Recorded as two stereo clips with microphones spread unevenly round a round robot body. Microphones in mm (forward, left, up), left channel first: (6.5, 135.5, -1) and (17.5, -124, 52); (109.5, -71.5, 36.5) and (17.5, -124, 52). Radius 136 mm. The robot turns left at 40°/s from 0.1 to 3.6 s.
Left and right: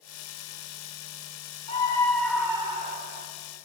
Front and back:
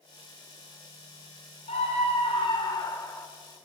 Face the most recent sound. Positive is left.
turn(degrees=-50)